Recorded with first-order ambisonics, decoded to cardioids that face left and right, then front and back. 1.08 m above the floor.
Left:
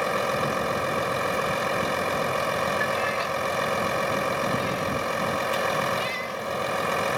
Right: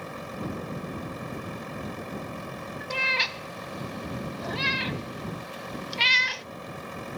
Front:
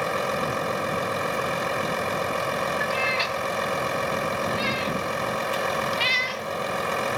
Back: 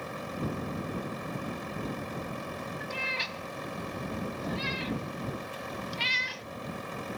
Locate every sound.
0.0 s a vehicle: 45° left
2.9 s a cat meowing: 70° right